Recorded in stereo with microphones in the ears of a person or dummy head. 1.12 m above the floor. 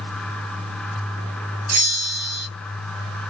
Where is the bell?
45° right (ahead or behind), 1.3 m.